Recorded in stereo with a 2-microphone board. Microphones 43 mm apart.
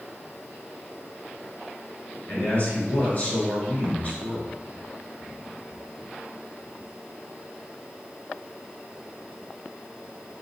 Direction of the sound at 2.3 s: 35° left (ahead or behind).